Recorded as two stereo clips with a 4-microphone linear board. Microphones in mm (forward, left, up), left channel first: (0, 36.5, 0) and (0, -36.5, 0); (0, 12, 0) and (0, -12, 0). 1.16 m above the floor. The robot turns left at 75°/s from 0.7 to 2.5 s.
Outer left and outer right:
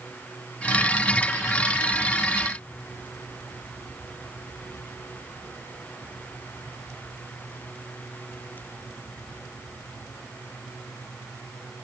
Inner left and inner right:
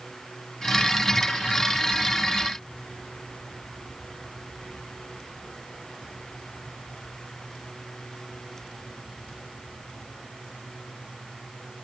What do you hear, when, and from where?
Only background noise.